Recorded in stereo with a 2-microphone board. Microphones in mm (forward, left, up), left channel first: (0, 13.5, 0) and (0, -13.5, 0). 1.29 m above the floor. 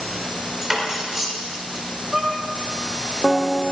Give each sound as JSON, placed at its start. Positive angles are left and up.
{"t": 0.6, "sound": "cutlery clinking", "side_deg": -10, "distance_m": 3.0}
{"t": 2.1, "sound": "a violin", "side_deg": -20, "distance_m": 1.4}